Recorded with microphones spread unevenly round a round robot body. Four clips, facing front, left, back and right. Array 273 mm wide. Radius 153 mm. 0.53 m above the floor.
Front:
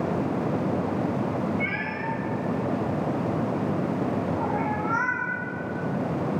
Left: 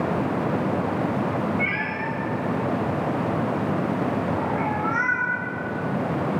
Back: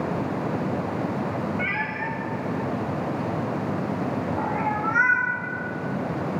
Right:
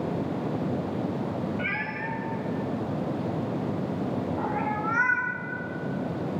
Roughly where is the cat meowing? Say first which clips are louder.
Left 5 dB, back 1 dB; ahead right.